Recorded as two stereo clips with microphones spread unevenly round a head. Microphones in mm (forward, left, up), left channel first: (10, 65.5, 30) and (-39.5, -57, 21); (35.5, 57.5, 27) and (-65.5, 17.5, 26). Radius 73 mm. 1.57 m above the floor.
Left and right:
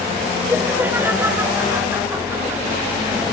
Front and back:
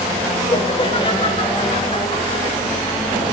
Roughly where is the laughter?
Ahead right.